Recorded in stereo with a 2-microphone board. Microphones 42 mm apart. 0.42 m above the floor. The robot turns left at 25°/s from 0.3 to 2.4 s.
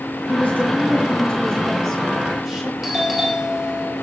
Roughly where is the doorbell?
Centre.